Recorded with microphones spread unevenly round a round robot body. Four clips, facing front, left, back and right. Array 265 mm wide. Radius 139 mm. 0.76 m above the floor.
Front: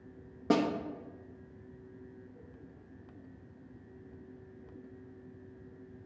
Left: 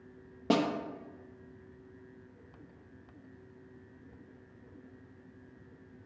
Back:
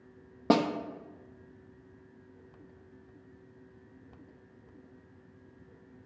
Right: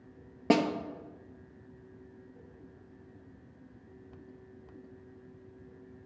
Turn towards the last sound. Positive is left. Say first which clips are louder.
# right 2 dB, back 3 dB
turn(degrees=-150)